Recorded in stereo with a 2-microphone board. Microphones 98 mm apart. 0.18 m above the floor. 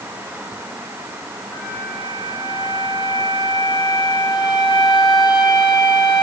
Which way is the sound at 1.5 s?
55° left (ahead or behind).